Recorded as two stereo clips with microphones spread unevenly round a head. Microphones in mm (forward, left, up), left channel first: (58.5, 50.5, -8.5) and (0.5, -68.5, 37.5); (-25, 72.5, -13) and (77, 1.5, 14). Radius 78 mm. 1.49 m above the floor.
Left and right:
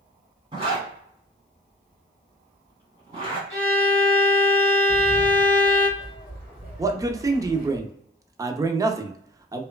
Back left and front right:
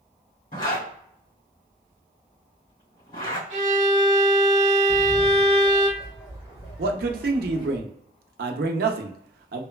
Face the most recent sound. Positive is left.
turn(degrees=-45)